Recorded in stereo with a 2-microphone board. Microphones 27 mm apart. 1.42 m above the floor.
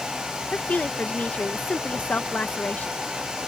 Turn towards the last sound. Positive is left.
turn(degrees=75)  # may be behind; listen again after turning